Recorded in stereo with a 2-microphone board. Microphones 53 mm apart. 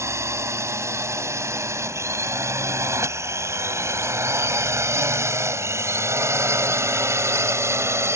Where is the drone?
65° right (ahead or behind); by 8.2 s 60° right (ahead or behind).